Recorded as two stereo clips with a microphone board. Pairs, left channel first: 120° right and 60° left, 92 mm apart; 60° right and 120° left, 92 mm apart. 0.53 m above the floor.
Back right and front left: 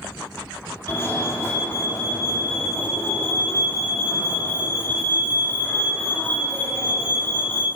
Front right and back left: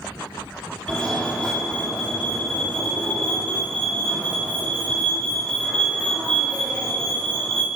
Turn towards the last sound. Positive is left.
turn(degrees=-125)